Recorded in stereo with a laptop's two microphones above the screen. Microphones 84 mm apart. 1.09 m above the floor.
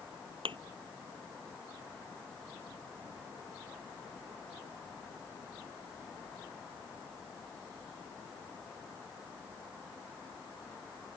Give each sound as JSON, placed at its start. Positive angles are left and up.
{"t": 0.5, "sound": "a thud", "side_deg": -85}